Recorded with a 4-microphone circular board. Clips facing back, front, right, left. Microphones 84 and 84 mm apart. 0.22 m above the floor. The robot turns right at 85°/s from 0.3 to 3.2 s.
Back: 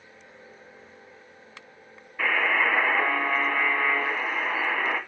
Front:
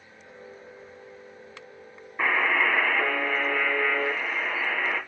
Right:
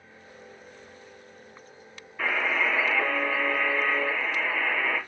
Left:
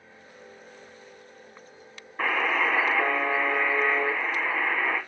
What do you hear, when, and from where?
2.2 s a buzzer: 60° left, 1.9 m; by 5.0 s 150° left, 1.9 m